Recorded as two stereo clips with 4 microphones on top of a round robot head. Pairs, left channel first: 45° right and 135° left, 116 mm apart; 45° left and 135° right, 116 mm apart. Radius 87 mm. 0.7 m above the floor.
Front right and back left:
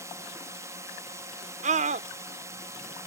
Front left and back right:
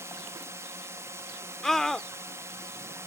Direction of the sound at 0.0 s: Straight behind.